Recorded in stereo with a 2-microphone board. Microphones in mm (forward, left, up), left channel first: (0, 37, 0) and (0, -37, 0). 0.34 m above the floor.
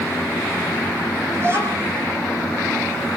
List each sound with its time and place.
1.4 s a child speaking: 35° right (ahead or behind), 7 m